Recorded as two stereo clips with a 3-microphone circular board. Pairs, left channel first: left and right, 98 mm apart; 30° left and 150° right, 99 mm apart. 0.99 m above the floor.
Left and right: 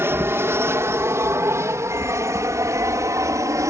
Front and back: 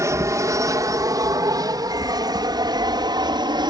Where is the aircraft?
130° right; by 3.7 s 135° right.